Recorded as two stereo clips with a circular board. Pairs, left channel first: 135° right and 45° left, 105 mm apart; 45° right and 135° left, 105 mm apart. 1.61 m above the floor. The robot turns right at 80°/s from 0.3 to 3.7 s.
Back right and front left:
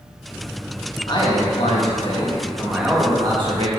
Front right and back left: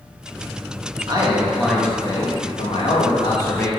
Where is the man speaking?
Straight behind, 1.8 m; by 3.7 s 30° left, 1.8 m.